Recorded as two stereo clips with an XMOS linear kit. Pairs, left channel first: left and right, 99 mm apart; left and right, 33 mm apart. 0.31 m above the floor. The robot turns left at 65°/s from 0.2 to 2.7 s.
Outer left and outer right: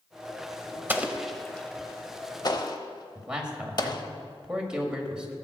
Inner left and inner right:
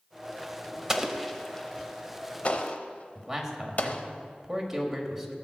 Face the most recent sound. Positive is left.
turn(degrees=-10)  # may be behind; listen again after turning